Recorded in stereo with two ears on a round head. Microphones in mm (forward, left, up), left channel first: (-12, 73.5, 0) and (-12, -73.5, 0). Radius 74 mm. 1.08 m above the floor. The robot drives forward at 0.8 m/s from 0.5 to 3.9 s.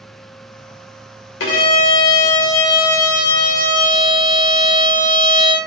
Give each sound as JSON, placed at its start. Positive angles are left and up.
{"t": 1.4, "sound": "a violin", "side_deg": 85, "distance_m": 2.5}